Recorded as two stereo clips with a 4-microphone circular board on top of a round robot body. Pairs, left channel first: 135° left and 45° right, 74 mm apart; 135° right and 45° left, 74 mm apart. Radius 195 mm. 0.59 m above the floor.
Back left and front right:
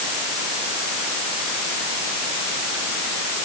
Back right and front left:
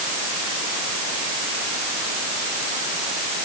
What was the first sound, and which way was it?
Only background noise.